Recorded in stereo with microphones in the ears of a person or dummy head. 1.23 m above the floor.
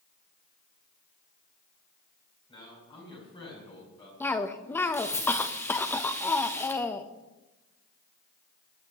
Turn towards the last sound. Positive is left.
turn(degrees=15)  # may be behind; listen again after turning